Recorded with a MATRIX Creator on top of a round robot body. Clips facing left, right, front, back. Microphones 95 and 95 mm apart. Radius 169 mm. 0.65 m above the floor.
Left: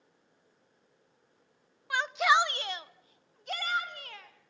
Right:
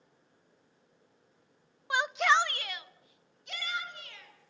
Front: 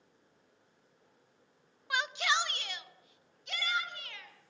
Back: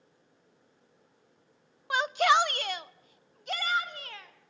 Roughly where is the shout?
Behind right.